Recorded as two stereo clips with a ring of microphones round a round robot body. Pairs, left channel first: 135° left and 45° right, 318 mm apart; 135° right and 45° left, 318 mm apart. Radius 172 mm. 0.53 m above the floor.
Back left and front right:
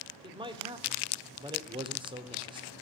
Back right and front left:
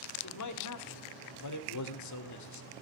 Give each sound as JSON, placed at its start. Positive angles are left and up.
{"t": 0.2, "sound": "a man speaking", "azimuth_deg": -120, "distance_m": 1.9}